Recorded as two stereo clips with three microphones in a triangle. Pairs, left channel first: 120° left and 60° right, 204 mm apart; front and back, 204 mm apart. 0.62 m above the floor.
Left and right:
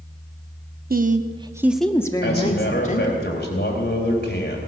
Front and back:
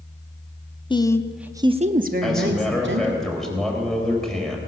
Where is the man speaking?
90° left, 3 m.